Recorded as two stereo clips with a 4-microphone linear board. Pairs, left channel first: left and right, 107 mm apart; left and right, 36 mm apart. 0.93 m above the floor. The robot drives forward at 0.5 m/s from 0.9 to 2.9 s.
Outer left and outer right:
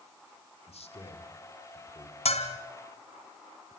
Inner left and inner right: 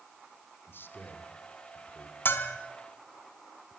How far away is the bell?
About 3 m.